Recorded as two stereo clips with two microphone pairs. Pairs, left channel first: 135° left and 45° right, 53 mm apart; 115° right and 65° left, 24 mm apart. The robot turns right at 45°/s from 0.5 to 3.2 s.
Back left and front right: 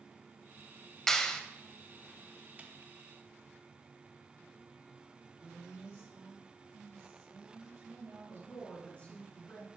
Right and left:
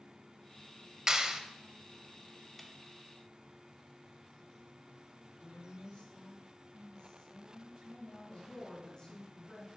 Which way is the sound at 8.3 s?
165° right.